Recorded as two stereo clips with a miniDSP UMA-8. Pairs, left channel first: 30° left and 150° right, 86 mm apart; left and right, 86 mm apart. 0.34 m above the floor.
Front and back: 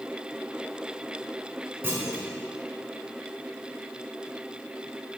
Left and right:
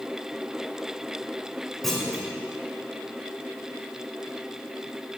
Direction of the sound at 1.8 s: 175° left.